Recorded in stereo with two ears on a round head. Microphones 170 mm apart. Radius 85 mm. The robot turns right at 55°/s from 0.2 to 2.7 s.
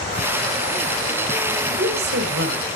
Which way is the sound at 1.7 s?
130° right.